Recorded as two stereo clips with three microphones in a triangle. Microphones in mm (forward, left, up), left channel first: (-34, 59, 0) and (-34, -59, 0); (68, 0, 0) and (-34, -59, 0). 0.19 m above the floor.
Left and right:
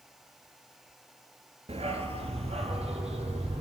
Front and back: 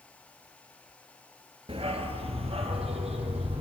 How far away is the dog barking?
About 0.7 m.